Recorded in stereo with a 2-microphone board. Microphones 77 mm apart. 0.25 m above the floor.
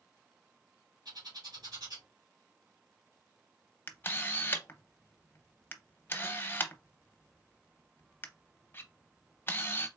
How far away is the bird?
About 2.5 m.